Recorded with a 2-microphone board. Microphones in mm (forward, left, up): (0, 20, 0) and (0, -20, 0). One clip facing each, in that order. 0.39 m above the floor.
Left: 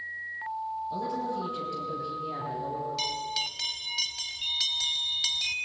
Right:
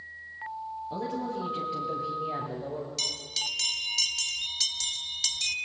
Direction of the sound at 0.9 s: 20° right (ahead or behind).